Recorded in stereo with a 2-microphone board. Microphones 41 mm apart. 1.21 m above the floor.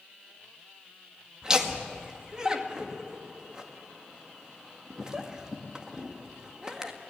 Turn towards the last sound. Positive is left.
turn(degrees=-20)  # may be behind; listen again after turning